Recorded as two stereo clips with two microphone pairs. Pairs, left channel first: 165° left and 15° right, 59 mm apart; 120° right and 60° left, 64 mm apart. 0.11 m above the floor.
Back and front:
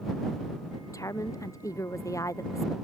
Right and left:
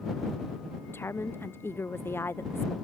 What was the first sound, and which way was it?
A woman speaking, 170° right.